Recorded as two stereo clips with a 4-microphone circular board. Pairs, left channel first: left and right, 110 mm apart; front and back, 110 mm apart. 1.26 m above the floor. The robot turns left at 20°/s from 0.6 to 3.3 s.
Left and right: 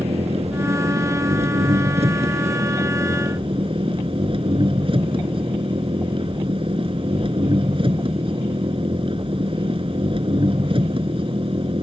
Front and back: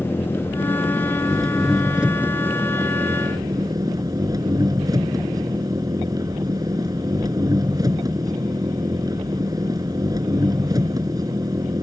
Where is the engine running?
70° right; by 11.8 s 125° right.